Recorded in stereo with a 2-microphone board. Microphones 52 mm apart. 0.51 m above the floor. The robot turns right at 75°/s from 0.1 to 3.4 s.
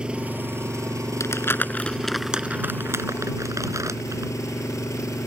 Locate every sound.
0.0 s an engine running: 160° right; by 5.3 s 85° left
1.2 s crumpling: 70° left (ahead or behind); by 4.3 s 80° right